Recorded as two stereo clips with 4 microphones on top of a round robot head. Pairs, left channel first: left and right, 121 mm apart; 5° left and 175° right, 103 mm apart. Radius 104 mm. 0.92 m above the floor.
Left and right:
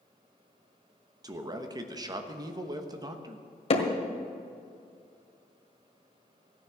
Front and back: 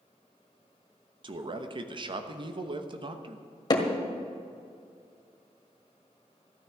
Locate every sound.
1.2 s a man speaking: 145° right, 1.2 m
3.7 s hammering: 55° left, 1.7 m